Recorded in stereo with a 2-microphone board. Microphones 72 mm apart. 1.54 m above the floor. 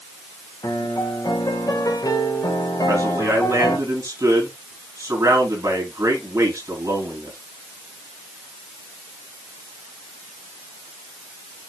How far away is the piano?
About 2.0 m.